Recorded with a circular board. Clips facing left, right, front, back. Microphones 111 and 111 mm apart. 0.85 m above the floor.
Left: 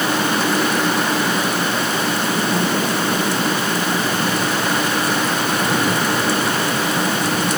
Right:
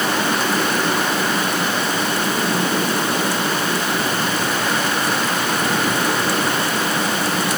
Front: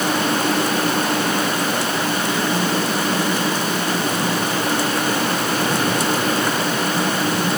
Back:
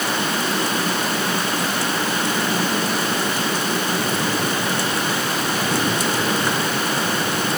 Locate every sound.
Only background noise.